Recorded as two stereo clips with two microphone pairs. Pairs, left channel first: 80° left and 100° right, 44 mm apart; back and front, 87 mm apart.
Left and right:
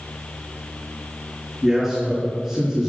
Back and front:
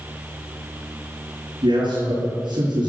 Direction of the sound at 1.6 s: 15° right.